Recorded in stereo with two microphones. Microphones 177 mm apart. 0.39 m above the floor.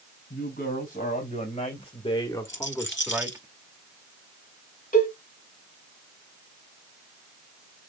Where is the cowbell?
50° left (ahead or behind), 3 m.